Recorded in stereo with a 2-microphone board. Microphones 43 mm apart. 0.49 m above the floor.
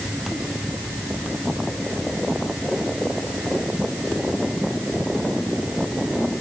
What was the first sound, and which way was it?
Only background noise.